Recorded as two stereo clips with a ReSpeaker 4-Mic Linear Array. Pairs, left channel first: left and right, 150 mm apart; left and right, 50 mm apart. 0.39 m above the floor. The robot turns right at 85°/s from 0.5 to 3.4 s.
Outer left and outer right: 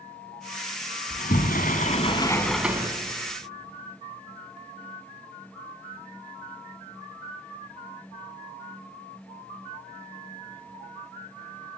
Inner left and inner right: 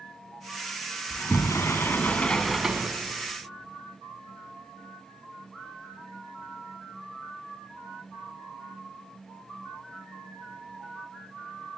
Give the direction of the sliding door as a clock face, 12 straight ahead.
10 o'clock.